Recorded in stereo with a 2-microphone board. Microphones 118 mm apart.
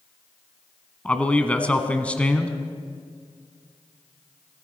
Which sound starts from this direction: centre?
A man speaking, at 1.1 s.